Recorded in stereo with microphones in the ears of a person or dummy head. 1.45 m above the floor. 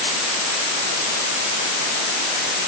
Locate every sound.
Only background noise.